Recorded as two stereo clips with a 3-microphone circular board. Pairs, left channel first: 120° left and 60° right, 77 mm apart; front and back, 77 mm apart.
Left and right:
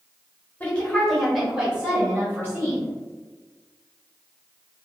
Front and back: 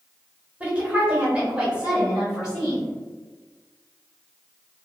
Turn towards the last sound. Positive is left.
turn(degrees=-100)